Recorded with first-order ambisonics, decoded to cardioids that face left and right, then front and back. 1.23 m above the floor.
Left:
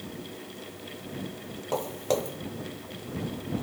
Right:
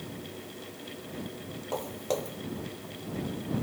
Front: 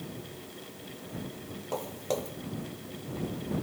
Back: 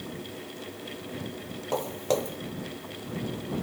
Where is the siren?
I don't hear a siren.